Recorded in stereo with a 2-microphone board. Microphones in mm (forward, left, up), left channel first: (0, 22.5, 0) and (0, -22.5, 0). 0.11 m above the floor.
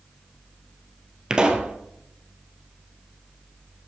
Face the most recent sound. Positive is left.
turn(degrees=-20)  # may be behind; listen again after turning